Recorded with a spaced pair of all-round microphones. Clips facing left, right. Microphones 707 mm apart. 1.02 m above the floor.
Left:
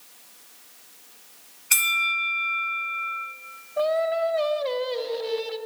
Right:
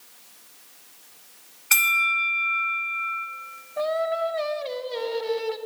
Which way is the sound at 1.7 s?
75° right (ahead or behind).